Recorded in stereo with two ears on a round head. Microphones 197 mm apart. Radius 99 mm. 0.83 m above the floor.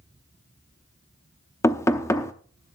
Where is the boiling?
No boiling in this recording.